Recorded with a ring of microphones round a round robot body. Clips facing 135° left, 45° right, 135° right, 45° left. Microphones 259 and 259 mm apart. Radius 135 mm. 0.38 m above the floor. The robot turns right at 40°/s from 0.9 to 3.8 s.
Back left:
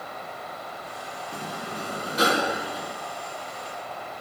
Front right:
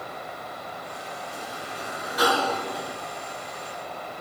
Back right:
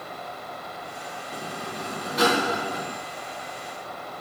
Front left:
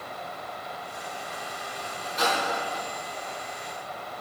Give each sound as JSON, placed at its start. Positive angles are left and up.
{"t": 1.3, "sound": "a sliding door", "azimuth_deg": 165, "distance_m": 1.2}